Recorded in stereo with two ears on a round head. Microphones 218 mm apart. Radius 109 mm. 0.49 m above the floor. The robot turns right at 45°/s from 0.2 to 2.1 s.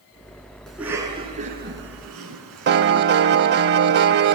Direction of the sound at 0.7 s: Centre (ahead or behind).